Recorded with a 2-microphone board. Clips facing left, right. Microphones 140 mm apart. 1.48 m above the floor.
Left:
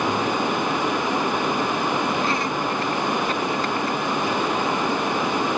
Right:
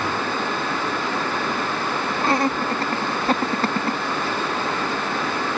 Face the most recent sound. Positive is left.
turn(degrees=-80)